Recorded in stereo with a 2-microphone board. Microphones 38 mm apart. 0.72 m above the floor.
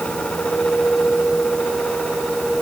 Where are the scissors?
I don't hear scissors.